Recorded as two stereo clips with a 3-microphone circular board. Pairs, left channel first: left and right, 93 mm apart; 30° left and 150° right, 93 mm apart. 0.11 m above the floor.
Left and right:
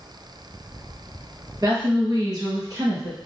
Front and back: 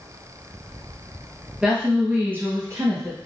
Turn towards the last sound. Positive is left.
turn(degrees=-125)